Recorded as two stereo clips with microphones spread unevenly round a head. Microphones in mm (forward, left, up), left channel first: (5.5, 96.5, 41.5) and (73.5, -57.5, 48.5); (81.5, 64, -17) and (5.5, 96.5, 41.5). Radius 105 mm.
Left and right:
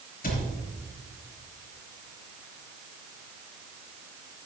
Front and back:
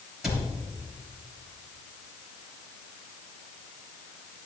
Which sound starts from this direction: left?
A cupboard door, at 0.2 s.